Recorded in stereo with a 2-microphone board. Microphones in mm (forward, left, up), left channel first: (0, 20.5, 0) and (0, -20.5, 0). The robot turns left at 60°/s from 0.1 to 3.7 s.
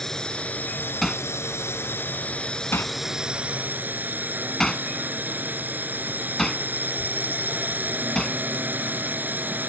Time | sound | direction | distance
0.0 | a drone | 170° left | ?
1.0 | hammering | 5° left (ahead or behind) | ?